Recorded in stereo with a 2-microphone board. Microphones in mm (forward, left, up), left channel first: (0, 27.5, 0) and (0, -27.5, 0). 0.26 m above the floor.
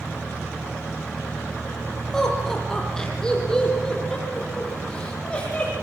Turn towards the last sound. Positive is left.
turn(degrees=20)  # may be behind; listen again after turning